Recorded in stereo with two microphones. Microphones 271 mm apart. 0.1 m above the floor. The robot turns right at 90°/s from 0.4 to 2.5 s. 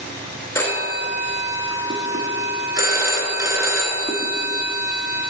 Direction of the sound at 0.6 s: 10° left (ahead or behind).